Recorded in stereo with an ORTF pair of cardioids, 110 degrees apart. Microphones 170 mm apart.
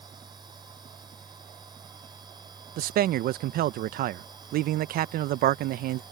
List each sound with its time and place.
0.0 s a machine running: 25° right
2.8 s a man speaking: 65° right